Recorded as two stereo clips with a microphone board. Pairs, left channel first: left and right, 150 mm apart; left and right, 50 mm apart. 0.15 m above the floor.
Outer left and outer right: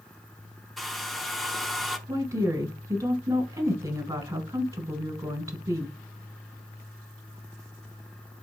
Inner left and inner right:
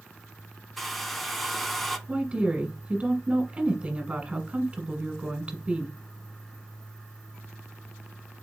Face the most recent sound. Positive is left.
turn(degrees=-20)  # may be behind; listen again after turning